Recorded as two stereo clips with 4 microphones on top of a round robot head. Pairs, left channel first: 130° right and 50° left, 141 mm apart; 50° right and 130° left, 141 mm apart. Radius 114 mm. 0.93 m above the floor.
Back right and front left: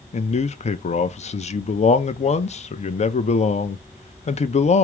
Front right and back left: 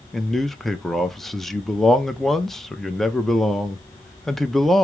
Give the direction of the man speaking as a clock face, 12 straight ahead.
5 o'clock.